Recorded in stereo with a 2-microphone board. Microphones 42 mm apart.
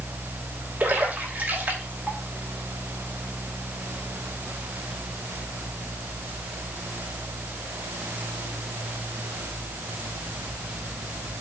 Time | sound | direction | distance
0.8 | a splash | 50° right (ahead or behind) | 3 m